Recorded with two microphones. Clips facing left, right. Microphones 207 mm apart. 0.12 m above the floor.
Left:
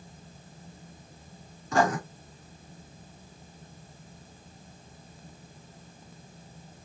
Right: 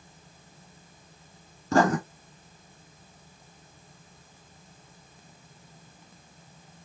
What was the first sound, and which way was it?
Writing, 40° right (ahead or behind).